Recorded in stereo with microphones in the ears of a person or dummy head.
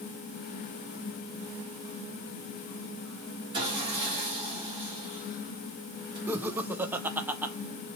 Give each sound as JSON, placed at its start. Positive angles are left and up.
{"t": 3.5, "sound": "sawing", "side_deg": -25, "distance_m": 1.5}
{"t": 6.3, "sound": "laughter", "side_deg": -10, "distance_m": 0.6}